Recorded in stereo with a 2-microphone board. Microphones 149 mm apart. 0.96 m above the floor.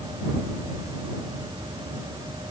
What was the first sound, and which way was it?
Only background noise.